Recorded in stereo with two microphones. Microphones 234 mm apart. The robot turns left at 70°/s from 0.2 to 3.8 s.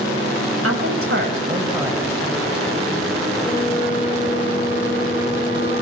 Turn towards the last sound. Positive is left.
turn(degrees=45)  # may be behind; listen again after turning